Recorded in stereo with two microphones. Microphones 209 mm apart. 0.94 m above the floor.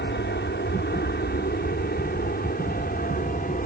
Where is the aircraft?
55° left (ahead or behind); by 3.7 s 40° left (ahead or behind).